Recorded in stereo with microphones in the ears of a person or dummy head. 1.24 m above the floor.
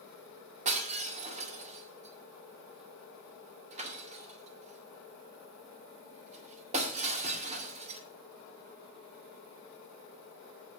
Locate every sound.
0.7 s breaking glass: 35° right (ahead or behind), 1.8 m